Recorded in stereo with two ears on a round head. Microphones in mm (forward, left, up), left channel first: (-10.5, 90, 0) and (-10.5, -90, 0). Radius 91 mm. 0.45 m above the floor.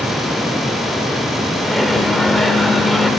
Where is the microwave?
Centre (ahead or behind), 1.0 m.